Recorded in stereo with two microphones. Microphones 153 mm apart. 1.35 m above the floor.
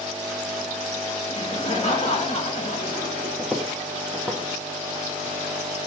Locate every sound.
1.3 s laughter: 50° left (ahead or behind), 2 m
3.4 s footsteps: centre (ahead or behind), 1.4 m; by 5.3 s 5° left (ahead or behind), 3 m